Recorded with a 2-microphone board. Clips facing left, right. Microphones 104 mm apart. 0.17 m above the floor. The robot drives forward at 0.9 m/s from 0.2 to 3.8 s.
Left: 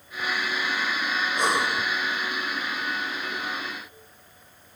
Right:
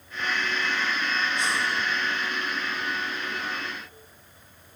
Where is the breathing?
50° left (ahead or behind), 1.5 m; by 1.9 s 65° left (ahead or behind), 1.3 m.